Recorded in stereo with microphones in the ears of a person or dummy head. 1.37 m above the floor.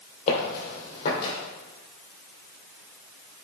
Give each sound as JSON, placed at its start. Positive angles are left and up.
{"t": 0.3, "sound": "footsteps", "side_deg": 45, "distance_m": 3.0}